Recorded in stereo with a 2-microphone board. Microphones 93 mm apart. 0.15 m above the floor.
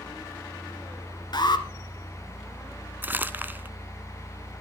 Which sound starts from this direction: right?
Crumpling, at 3.0 s.